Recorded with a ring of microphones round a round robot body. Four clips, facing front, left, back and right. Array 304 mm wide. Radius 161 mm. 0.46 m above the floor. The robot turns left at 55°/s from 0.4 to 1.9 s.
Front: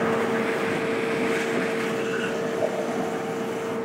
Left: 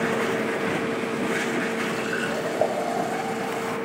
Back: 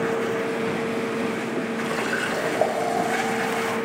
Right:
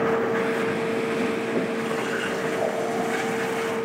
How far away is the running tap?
About 2 m.